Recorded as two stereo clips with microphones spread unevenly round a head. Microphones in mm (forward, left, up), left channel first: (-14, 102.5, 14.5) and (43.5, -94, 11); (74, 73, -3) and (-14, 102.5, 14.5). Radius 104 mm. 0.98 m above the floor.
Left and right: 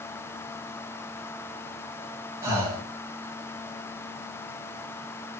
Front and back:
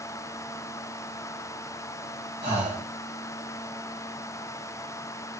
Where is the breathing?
150° right, 4.5 m.